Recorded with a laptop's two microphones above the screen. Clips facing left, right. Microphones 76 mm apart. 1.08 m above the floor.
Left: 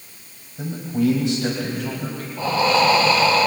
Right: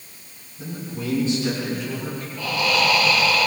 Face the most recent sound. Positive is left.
turn(degrees=30)  # may be behind; listen again after turning